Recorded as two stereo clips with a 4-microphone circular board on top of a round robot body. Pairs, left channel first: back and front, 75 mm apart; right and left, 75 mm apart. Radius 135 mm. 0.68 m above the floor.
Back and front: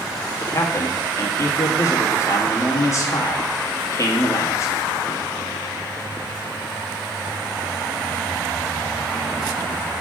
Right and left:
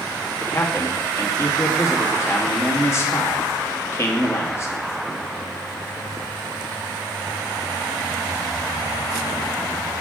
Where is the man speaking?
140° right, 1.9 m.